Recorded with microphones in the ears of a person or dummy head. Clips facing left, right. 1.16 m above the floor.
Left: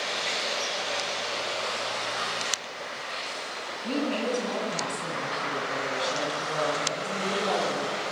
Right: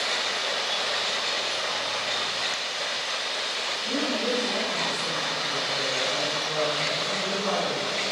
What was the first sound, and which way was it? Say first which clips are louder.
A woman speaking: even; 40° left (ahead or behind).